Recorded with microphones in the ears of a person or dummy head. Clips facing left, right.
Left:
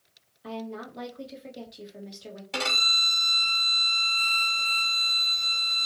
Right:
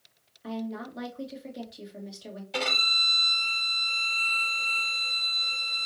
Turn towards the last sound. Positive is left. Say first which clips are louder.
# right 1 dB
turn(degrees=85)